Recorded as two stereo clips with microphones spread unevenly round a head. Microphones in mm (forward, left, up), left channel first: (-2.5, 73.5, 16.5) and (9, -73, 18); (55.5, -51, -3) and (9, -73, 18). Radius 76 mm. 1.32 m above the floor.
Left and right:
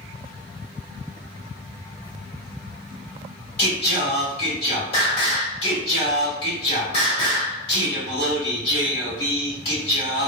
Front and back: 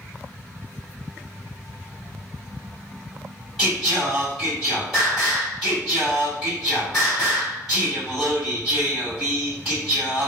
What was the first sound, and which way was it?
Singing, 135° left.